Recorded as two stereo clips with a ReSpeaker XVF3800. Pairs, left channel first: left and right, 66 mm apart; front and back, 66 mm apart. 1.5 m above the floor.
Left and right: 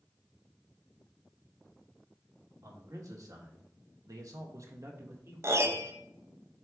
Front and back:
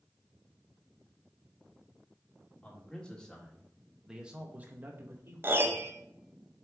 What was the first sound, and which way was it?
A man speaking, 65° right.